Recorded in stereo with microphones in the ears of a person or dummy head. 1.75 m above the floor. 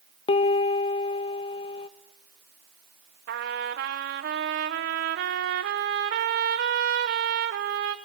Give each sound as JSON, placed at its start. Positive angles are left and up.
{"t": 0.3, "sound": "a piano", "side_deg": 30, "distance_m": 0.8}
{"t": 3.3, "sound": "a trumpet", "side_deg": -45, "distance_m": 0.9}